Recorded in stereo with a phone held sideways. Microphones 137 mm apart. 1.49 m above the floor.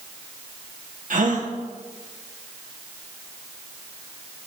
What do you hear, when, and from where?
1.1 s a gasp: 65° right (ahead or behind), 0.9 m